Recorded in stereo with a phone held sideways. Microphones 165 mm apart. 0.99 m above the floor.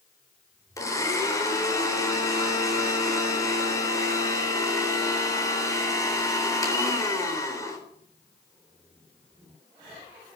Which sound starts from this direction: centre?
A blender, at 0.8 s.